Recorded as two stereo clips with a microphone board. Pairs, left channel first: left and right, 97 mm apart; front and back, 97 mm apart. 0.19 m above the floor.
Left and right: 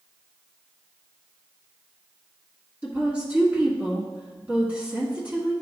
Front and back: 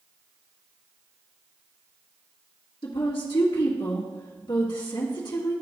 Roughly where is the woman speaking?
Ahead.